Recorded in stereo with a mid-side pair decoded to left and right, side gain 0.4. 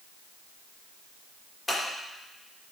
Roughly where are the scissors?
Ahead.